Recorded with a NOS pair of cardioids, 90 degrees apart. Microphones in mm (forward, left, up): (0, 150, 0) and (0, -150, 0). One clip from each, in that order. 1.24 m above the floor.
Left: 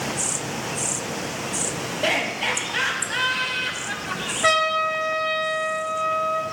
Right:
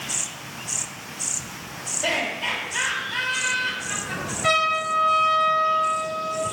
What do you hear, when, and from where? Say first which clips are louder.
2.0 s laughter: left 2 dB; 55° left, 6.5 m
4.4 s a trumpet: left 1 dB; 55° left, 4 m